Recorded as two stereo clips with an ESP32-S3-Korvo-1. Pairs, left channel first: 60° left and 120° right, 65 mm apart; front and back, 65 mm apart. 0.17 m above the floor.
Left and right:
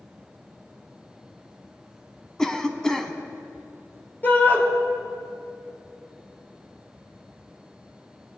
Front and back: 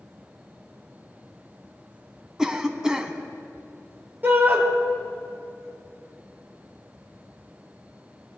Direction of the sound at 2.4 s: 125° left.